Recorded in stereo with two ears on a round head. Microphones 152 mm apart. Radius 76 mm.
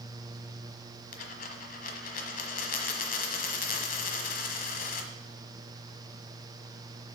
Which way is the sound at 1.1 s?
50° left (ahead or behind).